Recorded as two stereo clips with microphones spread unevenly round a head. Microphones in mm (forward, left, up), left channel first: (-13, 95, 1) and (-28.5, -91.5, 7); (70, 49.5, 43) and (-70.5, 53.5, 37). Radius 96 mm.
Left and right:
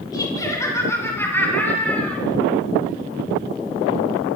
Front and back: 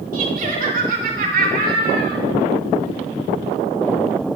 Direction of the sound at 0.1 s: 155° left.